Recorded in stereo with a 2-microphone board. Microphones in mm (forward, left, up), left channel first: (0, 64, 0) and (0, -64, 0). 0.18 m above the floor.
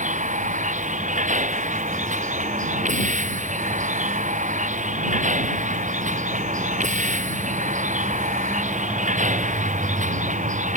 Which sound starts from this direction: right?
A vehicle, at 0.0 s.